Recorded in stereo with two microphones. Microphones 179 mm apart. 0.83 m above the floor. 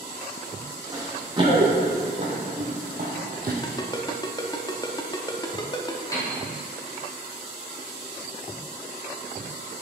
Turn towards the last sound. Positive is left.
turn(degrees=20)  # may be behind; listen again after turning